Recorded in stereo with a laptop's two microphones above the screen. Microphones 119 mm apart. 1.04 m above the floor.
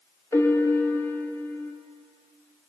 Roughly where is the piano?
Left.